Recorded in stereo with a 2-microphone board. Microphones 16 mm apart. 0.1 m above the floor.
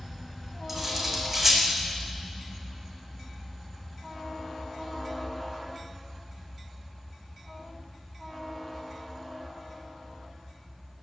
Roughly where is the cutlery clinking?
Centre.